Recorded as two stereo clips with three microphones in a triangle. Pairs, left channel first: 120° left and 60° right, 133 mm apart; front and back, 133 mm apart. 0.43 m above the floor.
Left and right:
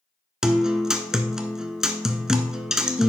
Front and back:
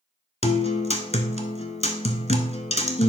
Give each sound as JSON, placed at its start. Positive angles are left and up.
{"t": 0.4, "sound": "a guitar", "azimuth_deg": 25, "distance_m": 0.8}